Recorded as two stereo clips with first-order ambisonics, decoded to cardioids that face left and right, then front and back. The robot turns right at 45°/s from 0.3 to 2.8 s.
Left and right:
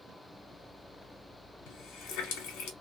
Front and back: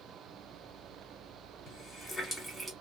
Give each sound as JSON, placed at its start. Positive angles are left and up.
{"t": 1.7, "sound": "a running tap", "azimuth_deg": 60, "distance_m": 1.1}